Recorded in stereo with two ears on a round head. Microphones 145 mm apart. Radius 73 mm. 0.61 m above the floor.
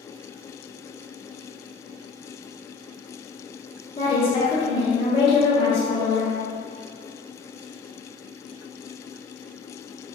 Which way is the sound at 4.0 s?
30° left (ahead or behind).